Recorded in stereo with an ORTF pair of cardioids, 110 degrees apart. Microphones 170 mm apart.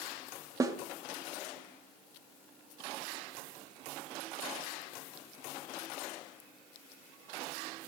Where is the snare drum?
20° right, 1.0 m.